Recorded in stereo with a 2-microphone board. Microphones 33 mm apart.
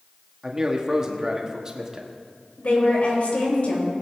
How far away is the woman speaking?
About 3 m.